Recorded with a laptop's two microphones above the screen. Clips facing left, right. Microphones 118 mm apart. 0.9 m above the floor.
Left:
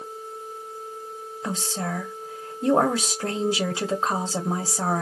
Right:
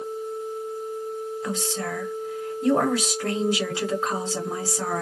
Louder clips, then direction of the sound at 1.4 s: Left 3 dB; 30° left (ahead or behind).